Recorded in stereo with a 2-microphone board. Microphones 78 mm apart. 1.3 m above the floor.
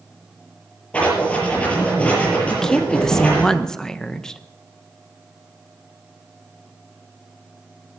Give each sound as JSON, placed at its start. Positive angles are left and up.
{"t": 0.9, "sound": "writing", "side_deg": 15, "distance_m": 6.5}
{"t": 2.5, "sound": "a woman speaking", "side_deg": 10, "distance_m": 0.8}